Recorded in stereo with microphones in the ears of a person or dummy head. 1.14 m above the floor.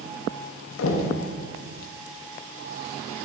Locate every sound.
0.8 s knocking: 80° left, 0.6 m